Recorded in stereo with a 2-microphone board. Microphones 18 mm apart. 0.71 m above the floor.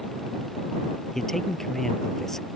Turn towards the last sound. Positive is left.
turn(degrees=25)  # may be behind; listen again after turning